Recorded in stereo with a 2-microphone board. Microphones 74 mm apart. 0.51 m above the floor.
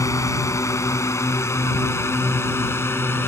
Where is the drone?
45° left (ahead or behind); by 3.3 s 35° left (ahead or behind).